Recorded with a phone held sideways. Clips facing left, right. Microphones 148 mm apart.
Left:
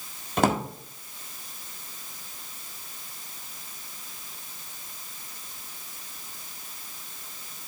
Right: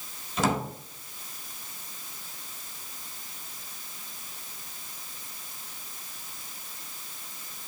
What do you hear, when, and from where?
0.4 s a drawer: 60° left (ahead or behind), 1.7 m